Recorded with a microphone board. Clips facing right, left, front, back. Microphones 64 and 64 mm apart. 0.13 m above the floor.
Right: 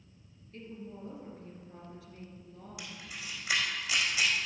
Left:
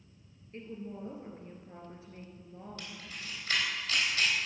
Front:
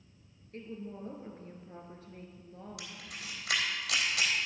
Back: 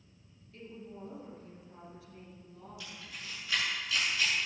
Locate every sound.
0.5 s a woman speaking: 35° left, 2.5 m
2.8 s a camera shutter: 15° right, 3.5 m